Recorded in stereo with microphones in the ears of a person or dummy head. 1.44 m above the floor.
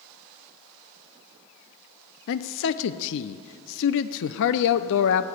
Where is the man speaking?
65° left (ahead or behind), 0.6 m.